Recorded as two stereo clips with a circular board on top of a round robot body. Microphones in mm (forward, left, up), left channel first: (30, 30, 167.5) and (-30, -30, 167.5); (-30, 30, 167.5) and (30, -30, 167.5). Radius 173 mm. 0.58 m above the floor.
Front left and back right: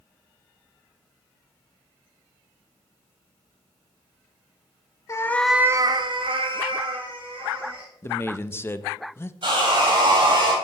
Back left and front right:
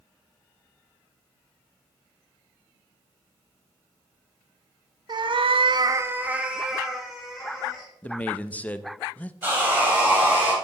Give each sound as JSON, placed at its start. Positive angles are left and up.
{"t": 5.1, "sound": "a cat meowing", "azimuth_deg": -10, "distance_m": 0.9}
{"t": 8.0, "sound": "a man speaking", "azimuth_deg": 75, "distance_m": 0.7}
{"t": 9.4, "sound": "sawing", "azimuth_deg": -115, "distance_m": 4.0}